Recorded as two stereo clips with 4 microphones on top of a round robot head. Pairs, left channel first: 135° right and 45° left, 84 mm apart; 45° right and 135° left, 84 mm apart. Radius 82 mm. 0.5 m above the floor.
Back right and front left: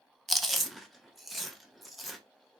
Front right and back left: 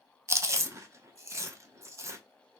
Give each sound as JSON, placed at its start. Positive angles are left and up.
{"t": 0.3, "sound": "chewing", "azimuth_deg": 130, "distance_m": 0.8}